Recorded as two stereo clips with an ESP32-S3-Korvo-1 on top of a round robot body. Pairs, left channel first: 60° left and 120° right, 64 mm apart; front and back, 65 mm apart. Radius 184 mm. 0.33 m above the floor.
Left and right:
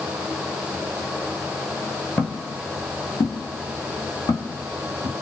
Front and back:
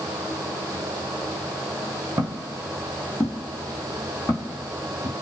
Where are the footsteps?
130° left, 0.6 m; by 5.1 s 55° left, 1.7 m.